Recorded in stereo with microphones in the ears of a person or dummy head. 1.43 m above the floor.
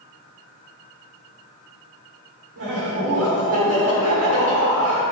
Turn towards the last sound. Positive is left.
turn(degrees=-80)